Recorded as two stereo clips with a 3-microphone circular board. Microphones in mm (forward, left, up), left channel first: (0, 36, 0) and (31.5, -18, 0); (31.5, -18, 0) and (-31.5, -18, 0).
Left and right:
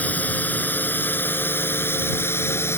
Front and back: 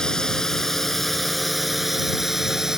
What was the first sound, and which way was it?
A drone, 75° left.